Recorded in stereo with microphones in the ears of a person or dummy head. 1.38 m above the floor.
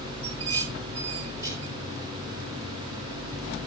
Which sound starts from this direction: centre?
Dishes clattering, at 0.2 s.